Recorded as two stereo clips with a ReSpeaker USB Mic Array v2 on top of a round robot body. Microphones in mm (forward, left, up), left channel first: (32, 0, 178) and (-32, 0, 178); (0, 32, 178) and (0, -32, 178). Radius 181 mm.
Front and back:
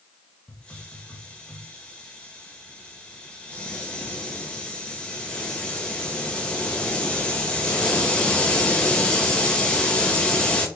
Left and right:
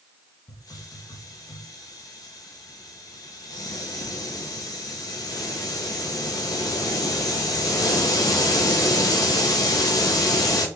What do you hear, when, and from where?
0.5 s a hiss: 75° left, 0.9 m